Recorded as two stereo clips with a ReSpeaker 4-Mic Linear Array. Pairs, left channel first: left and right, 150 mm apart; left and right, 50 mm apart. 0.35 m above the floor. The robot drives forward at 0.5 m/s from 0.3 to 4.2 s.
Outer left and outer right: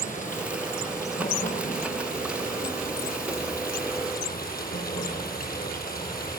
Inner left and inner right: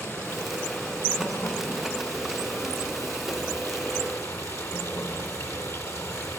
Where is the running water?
65° left (ahead or behind), 5.5 m; by 6.4 s 85° left, 5 m.